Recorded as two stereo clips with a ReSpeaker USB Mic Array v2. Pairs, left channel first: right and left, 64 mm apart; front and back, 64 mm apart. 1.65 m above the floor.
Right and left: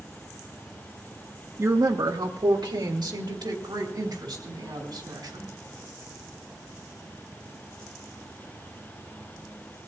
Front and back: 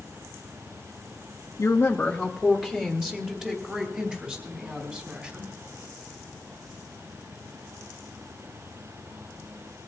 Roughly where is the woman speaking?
Ahead left.